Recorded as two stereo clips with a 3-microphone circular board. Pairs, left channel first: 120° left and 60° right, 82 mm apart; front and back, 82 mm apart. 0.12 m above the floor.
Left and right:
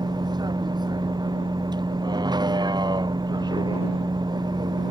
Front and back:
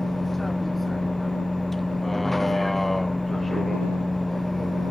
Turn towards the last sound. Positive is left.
turn(degrees=-90)